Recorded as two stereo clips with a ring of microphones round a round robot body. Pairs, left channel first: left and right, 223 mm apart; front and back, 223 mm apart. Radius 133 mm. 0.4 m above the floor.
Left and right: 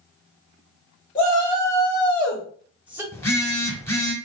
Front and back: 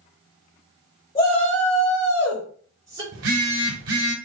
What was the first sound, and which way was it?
A shout, 25° left.